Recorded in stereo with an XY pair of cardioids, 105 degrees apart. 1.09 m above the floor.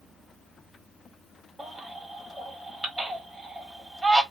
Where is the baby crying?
5° right, 1.4 m.